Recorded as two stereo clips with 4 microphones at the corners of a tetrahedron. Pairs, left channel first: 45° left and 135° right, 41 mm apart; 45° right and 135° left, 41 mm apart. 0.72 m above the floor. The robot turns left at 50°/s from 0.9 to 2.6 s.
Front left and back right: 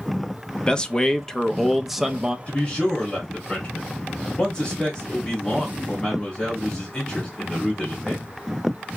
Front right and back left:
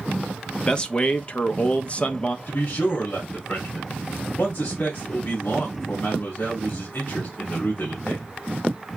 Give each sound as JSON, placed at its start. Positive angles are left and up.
{"t": 0.7, "sound": "a man speaking", "azimuth_deg": -5, "distance_m": 0.5}
{"t": 2.5, "sound": "a man speaking", "azimuth_deg": -15, "distance_m": 1.6}